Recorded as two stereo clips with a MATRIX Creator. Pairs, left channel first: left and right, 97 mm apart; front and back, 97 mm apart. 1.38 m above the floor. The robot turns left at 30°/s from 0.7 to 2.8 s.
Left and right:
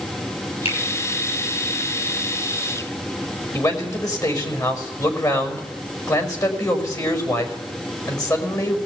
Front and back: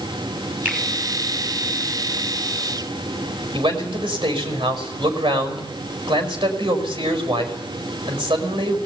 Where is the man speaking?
145° left, 5.5 m.